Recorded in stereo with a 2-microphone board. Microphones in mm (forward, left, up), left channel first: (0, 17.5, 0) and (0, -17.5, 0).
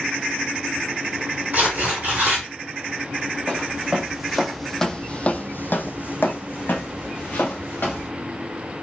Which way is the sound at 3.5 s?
25° right (ahead or behind).